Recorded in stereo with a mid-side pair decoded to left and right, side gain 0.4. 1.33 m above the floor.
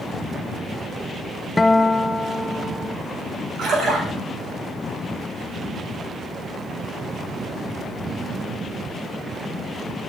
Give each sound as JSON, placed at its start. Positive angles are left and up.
{"t": 1.6, "sound": "a guitar", "azimuth_deg": 20, "distance_m": 0.7}
{"t": 3.6, "sound": "a splash", "azimuth_deg": -65, "distance_m": 6.5}